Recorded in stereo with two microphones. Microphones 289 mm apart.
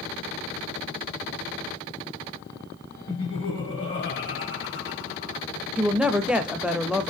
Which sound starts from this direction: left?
Laughter, at 3.1 s.